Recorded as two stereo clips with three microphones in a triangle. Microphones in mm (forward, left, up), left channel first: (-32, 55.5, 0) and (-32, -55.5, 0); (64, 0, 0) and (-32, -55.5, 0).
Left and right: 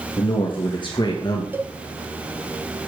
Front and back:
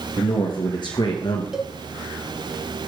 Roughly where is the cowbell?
Right.